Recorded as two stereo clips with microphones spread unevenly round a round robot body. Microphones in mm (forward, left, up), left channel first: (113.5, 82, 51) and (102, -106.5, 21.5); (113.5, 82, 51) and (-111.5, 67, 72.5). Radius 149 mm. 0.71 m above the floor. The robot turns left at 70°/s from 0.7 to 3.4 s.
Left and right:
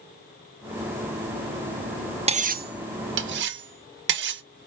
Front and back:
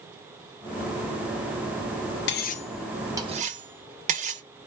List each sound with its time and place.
2.3 s cutlery clinking: 35° right, 0.5 m; by 4.4 s 115° right, 0.5 m